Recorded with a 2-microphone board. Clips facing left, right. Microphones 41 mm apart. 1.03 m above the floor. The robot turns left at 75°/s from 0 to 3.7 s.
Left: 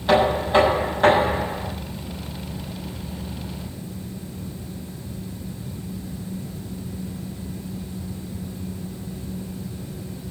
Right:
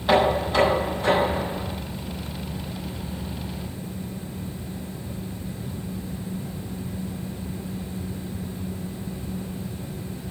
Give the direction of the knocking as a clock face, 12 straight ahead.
6 o'clock.